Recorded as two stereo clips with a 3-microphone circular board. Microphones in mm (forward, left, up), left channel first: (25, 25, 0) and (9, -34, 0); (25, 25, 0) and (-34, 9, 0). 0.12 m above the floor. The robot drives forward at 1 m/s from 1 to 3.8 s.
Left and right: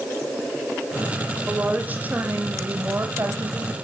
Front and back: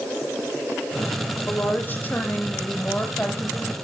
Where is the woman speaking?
40° right, 6 m; by 3.9 s 60° right, 4.5 m.